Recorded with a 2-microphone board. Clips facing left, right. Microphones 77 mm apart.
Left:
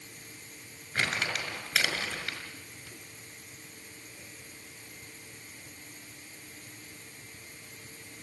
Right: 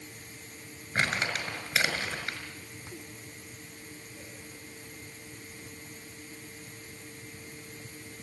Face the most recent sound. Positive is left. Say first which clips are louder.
# right 2 dB
turn(degrees=-20)  # may be behind; listen again after turning